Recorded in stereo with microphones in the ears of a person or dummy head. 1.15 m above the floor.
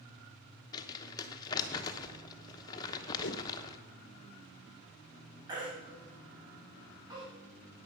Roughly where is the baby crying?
Right.